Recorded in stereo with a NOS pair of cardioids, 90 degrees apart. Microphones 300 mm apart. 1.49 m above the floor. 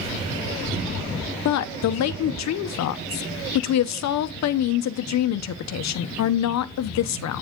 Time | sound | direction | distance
1.4 | a woman speaking | 60° left | 1.0 m